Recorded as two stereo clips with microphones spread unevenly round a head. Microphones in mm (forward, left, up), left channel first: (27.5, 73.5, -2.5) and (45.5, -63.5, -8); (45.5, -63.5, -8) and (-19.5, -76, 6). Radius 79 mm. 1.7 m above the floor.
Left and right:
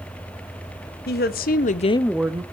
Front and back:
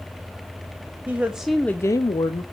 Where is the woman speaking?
115° left, 1.4 m; by 2.4 s 15° right, 0.8 m.